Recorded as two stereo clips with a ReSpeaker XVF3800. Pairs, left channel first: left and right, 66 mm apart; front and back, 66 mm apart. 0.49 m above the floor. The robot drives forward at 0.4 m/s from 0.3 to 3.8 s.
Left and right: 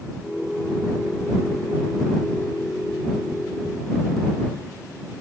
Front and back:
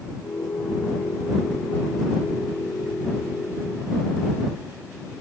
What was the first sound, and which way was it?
Only background noise.